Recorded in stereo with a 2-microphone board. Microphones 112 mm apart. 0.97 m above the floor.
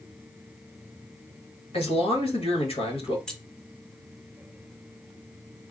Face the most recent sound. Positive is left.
turn(degrees=10)  # may be behind; listen again after turning